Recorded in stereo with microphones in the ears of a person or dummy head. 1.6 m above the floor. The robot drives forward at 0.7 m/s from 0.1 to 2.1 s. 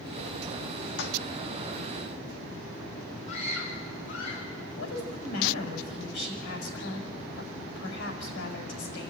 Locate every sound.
1.0 s a toilet flushing: 60° left (ahead or behind), 1.6 m
3.3 s a scream: 35° left (ahead or behind), 7 m
4.8 s a woman speaking: 65° left (ahead or behind), 6.5 m